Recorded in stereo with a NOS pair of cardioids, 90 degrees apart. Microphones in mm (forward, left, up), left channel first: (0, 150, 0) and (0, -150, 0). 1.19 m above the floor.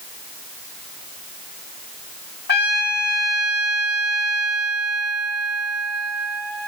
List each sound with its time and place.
2.5 s a trumpet: 35° left, 1.4 m